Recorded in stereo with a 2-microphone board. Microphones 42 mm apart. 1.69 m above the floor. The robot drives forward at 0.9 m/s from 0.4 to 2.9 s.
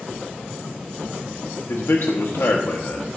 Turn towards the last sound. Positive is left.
turn(degrees=65)  # may be behind; listen again after turning